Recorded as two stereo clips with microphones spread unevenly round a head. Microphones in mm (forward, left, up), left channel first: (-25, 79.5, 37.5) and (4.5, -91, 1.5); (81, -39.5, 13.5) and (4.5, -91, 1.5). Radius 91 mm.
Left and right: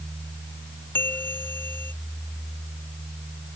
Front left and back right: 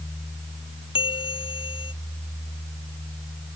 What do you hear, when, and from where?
0.9 s a bell: 20° left